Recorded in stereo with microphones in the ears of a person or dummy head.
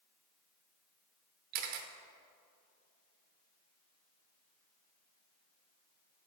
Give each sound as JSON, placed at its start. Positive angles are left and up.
{"t": 1.5, "sound": "a camera shutter", "side_deg": -50, "distance_m": 0.7}